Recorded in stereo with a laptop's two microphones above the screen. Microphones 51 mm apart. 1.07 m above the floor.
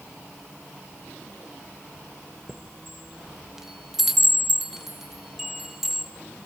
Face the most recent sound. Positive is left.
turn(degrees=-5)  # may be behind; listen again after turning